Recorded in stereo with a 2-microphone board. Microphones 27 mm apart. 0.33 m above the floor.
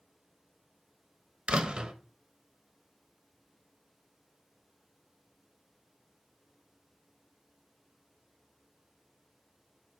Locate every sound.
1.5 s a door slam: 40° right (ahead or behind), 0.9 m